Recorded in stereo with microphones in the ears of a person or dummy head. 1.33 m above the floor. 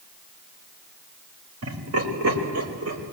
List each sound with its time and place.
1.6 s laughter: 80° right, 5.5 m; by 3.1 s 90° right, 5 m